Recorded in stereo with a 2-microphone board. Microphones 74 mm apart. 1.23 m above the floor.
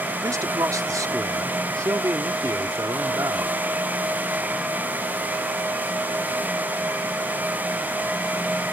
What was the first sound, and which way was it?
A man speaking, 55° right (ahead or behind).